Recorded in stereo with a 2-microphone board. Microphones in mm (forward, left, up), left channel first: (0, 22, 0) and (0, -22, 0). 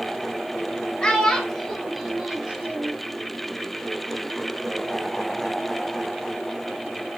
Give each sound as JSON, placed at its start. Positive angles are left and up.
{"t": 1.0, "sound": "a child speaking", "side_deg": 20, "distance_m": 0.9}